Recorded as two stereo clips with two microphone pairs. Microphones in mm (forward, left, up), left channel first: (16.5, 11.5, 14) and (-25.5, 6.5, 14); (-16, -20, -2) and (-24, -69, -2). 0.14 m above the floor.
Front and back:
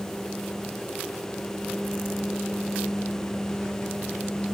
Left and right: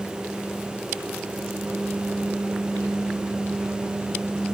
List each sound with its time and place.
Only background noise.